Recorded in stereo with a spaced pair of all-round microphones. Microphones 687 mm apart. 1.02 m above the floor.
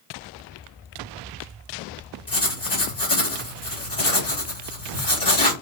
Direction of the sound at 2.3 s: 70° left (ahead or behind).